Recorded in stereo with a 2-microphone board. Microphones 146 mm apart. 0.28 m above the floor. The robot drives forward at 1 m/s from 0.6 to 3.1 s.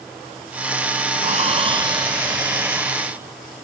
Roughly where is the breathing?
Right.